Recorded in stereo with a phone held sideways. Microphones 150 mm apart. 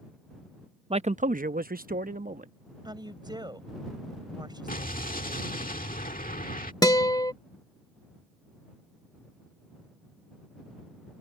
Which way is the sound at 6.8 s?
25° left (ahead or behind).